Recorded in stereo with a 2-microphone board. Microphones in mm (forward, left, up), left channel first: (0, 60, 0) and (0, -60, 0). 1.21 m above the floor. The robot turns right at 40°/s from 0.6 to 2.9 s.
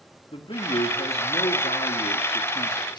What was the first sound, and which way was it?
A man speaking, 45° left.